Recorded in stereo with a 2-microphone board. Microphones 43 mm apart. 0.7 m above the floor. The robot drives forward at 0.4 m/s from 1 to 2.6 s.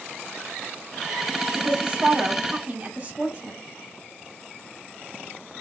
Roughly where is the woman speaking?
Centre.